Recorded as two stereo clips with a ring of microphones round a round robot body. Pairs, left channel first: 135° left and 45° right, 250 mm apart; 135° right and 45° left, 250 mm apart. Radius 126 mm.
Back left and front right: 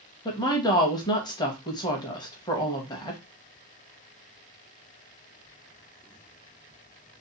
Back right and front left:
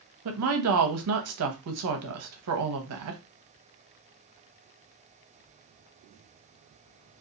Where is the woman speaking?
60° left, 0.7 m.